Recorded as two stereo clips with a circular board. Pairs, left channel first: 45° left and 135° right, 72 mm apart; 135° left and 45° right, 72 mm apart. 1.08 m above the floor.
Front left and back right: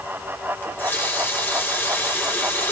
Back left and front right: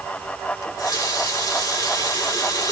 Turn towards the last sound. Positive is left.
turn(degrees=105)